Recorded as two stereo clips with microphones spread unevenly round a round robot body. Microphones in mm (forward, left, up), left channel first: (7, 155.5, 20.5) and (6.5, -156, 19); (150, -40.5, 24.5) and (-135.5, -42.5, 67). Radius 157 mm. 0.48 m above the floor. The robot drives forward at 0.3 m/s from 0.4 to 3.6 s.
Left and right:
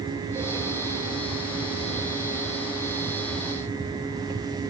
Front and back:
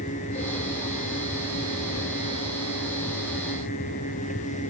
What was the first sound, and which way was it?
Only background noise.